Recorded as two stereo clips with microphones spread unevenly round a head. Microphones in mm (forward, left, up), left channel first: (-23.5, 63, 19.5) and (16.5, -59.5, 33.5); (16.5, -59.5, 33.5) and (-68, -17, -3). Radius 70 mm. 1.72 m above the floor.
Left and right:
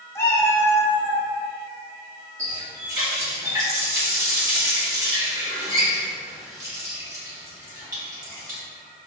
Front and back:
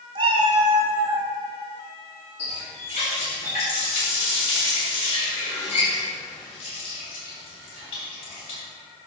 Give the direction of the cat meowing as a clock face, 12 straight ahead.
6 o'clock.